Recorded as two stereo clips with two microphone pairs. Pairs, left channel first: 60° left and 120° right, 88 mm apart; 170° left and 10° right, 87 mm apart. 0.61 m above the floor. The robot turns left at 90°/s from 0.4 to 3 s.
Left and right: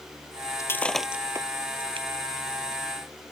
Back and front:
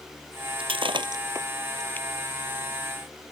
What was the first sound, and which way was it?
Breaking glass, 5° left.